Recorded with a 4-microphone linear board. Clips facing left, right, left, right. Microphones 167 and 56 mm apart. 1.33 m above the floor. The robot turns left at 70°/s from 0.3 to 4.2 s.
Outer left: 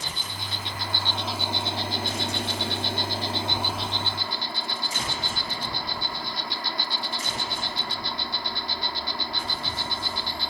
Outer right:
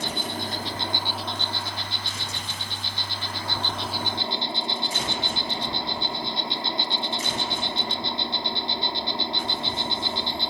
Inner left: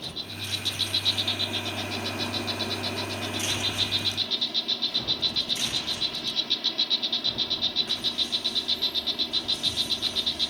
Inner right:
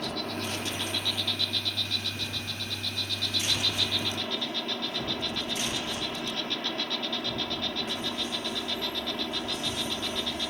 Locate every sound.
0.0 s an insect: 115° right; by 10.5 s 25° right